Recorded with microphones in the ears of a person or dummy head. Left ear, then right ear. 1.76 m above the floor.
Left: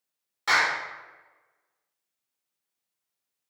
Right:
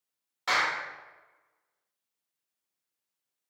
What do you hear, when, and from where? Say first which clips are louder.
0.5 s a clap: left 4 dB; 5° right (ahead or behind), 1.2 m